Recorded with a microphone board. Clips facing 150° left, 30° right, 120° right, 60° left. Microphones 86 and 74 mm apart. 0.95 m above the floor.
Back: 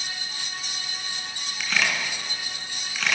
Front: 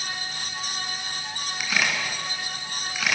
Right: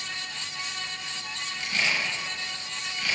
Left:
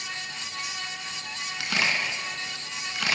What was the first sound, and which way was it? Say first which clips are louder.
A camera shutter: even, left 1 dB; 55° left.